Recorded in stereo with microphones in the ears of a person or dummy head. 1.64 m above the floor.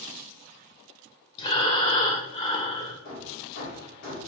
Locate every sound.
1.4 s breathing: 25° left (ahead or behind), 0.8 m
3.0 s hammering: 50° left (ahead or behind), 1.6 m